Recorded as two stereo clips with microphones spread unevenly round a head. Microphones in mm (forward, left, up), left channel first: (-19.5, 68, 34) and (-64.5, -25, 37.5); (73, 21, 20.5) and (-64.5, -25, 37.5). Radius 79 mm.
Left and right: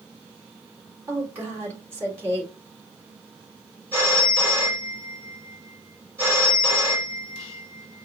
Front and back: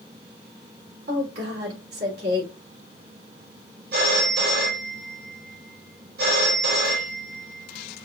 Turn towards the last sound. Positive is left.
turn(degrees=175)